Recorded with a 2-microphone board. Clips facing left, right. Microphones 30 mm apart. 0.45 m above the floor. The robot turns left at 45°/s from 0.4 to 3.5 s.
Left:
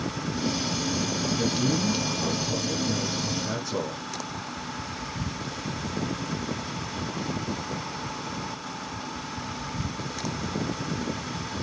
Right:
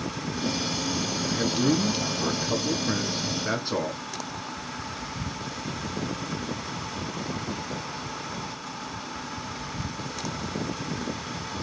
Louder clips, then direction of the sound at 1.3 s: Right 3 dB; 30° right.